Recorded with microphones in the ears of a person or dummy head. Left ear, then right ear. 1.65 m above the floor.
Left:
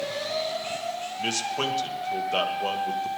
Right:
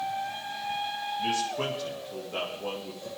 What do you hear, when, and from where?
1.2 s a man speaking: 85° left, 2.5 m